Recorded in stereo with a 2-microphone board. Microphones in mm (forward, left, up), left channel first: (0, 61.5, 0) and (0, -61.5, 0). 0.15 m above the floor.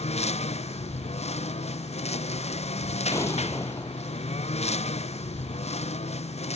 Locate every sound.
0.0 s a lawn mower: 60° left (ahead or behind)
3.1 s an explosion: 25° left (ahead or behind)